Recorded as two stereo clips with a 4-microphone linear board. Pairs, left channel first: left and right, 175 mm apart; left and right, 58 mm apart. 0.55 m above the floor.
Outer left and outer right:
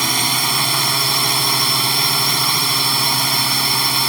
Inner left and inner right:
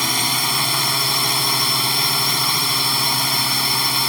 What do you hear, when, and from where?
0.0 s a drone: centre (ahead or behind)